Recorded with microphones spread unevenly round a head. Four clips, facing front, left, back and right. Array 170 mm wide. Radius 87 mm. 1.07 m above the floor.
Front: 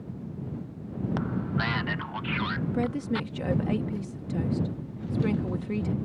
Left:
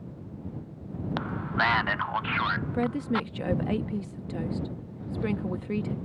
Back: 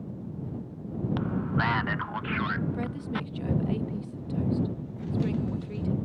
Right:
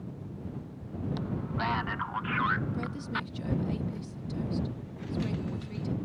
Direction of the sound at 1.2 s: 60° left.